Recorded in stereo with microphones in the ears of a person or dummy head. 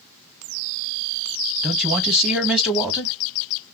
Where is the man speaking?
5° right (ahead or behind), 1.2 m.